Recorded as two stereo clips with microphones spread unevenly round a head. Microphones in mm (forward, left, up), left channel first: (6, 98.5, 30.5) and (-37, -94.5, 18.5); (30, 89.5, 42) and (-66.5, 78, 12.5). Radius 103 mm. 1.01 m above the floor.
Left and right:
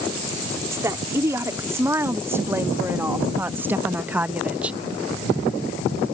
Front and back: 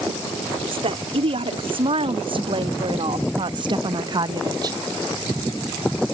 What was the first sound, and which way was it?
A woman speaking, straight behind.